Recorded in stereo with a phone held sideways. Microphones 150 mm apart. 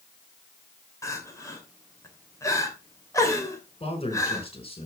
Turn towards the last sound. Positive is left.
turn(degrees=40)  # may be behind; listen again after turning